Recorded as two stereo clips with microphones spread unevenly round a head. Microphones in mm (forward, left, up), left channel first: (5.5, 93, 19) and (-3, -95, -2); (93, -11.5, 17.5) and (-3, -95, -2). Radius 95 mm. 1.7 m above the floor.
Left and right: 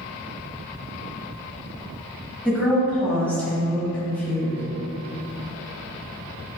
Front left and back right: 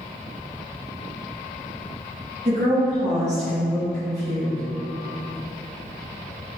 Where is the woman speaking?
165° left, 1.0 m.